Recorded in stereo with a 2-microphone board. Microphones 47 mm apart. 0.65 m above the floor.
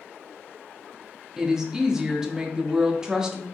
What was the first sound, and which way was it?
A woman speaking, 10° right (ahead or behind).